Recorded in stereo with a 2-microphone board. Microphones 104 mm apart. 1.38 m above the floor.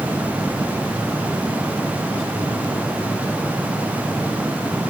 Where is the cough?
I don't hear a cough.